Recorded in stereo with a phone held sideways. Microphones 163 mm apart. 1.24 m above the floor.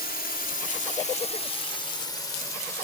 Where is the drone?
70° left (ahead or behind); by 2.9 s 15° left (ahead or behind).